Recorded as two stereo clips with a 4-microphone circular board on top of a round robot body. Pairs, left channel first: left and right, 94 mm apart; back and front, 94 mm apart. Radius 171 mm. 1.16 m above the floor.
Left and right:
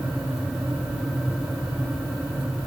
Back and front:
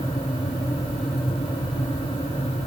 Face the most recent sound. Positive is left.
No sound to turn to.